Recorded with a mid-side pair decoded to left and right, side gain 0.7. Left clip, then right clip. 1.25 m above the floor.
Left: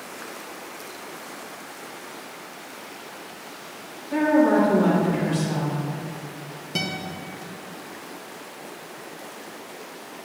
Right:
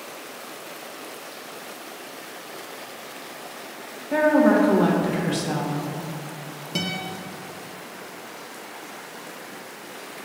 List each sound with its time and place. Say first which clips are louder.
4.1 s a woman speaking: right 1 dB; 35° right, 1.5 m
6.8 s a guitar: even; 5° right, 0.9 m